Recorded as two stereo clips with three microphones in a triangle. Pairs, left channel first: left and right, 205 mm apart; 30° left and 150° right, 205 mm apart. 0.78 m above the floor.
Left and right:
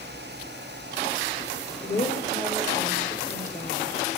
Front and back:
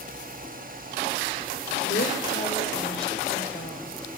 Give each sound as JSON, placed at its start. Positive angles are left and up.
{"t": 1.8, "sound": "a woman speaking", "azimuth_deg": 35, "distance_m": 3.0}